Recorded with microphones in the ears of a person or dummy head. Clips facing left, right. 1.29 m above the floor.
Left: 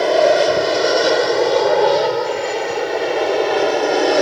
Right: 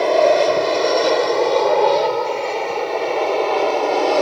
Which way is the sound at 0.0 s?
Centre (ahead or behind).